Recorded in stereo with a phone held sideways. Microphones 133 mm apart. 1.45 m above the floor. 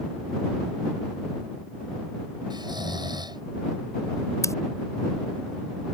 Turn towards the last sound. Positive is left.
turn(degrees=20)  # may be behind; listen again after turning